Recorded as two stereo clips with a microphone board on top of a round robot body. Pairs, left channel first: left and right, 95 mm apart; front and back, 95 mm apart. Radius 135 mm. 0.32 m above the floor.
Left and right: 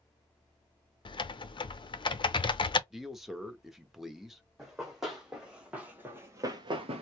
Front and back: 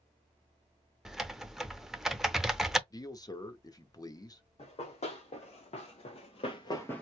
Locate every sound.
1.1 s typing on a keyboard: 95° left, 0.7 m
2.9 s a man speaking: 5° right, 1.0 m
4.6 s running footsteps: straight ahead, 1.8 m; by 7.0 s 80° right, 0.5 m